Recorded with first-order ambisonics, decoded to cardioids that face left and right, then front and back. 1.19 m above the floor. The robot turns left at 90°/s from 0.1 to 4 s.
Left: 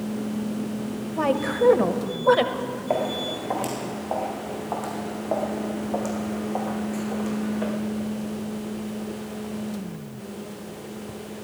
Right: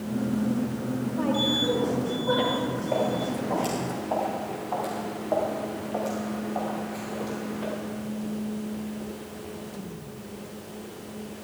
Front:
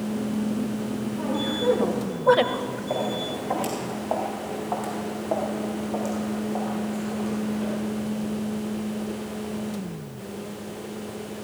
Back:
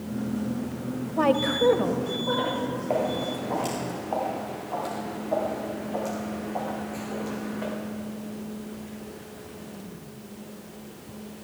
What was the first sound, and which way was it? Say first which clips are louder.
A woman speaking: left 3 dB, back 7 dB; 150° left.